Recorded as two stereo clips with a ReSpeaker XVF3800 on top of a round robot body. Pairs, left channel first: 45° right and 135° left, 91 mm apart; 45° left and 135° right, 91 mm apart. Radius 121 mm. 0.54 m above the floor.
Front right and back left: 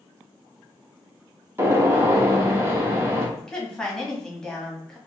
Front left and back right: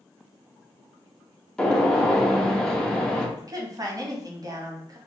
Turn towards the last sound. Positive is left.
turn(degrees=-125)